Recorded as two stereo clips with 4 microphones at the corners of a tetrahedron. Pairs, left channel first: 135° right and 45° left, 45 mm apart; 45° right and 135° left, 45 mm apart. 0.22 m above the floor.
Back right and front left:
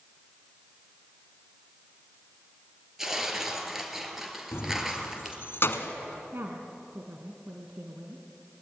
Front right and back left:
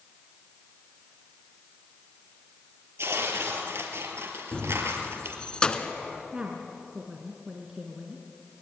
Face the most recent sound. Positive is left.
turn(degrees=65)